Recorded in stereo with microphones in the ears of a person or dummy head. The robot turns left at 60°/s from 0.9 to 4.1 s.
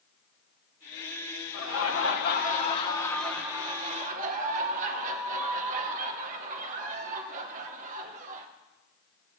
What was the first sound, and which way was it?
Laughter, 105° left.